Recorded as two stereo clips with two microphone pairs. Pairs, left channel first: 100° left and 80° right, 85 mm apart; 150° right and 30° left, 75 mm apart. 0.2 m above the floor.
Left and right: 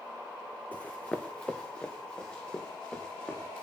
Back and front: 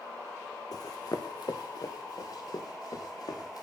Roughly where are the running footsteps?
Behind.